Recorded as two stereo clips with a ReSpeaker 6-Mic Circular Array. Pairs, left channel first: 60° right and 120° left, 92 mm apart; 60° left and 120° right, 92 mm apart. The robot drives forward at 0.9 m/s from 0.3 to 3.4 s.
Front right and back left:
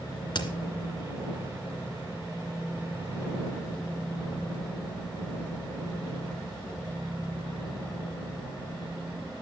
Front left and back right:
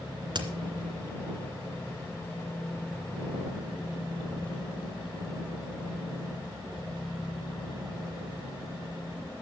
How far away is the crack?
About 2 m.